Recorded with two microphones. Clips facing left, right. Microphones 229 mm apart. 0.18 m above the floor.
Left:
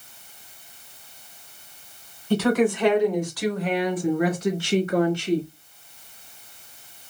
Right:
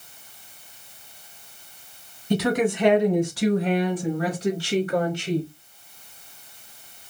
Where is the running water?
I don't hear running water.